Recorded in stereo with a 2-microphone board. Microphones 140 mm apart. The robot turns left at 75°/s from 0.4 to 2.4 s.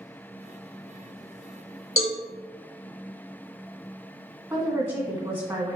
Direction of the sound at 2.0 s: 45° left (ahead or behind).